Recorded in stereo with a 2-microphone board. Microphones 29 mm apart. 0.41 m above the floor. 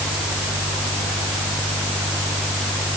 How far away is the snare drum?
No snare drum in this recording.